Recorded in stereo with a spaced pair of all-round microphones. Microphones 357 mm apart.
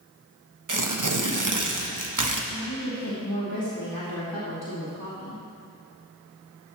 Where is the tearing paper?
60° right (ahead or behind), 1.2 m.